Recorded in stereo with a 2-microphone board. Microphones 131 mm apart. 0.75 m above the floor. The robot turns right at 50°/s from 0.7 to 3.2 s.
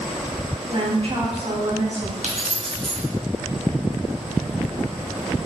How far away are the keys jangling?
About 0.6 m.